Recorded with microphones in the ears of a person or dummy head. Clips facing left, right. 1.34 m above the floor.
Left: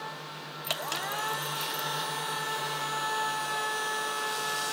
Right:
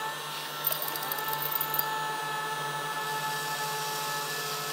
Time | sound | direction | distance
0.6 | keys jangling | 35° right (ahead or behind) | ?